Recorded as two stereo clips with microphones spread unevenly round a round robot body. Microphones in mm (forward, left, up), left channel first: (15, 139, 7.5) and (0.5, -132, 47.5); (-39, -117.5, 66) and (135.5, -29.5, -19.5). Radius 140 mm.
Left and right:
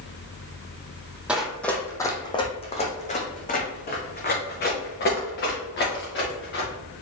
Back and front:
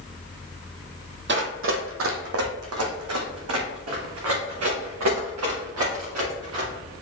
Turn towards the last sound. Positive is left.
turn(degrees=35)